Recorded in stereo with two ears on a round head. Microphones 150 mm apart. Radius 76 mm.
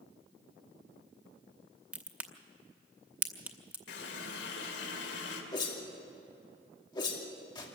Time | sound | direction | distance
1.9 | a crack | 10° right (ahead or behind) | 0.9 m
3.9 | a running tap | 75° left (ahead or behind) | 2.5 m
5.5 | a whoosh | 30° left (ahead or behind) | 2.5 m